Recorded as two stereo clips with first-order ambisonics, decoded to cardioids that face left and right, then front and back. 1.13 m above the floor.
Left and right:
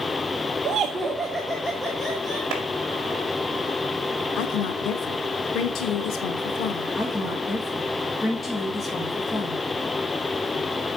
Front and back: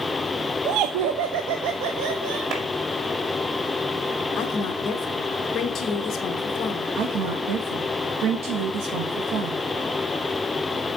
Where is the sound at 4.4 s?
55° left, 1.2 m.